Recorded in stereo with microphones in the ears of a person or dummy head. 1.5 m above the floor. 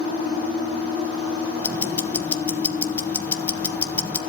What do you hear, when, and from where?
1.6 s ticking: 10° left (ahead or behind), 1.1 m